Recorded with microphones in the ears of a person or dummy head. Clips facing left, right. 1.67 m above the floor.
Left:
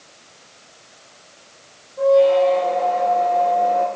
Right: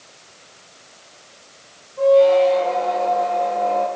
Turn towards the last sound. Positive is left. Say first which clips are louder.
# right 1 dB
turn(degrees=5)  # may be behind; listen again after turning